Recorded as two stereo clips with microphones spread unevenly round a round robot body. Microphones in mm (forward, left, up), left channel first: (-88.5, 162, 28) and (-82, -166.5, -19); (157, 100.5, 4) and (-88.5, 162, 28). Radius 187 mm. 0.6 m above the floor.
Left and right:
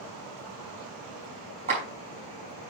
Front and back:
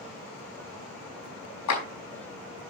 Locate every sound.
1.7 s a clap: 15° right, 4.5 m